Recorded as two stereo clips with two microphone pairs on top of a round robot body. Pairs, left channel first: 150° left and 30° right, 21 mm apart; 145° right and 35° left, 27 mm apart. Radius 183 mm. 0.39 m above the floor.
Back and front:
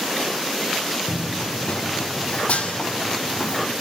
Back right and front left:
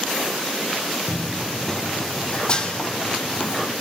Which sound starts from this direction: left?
Running footsteps, at 1.1 s.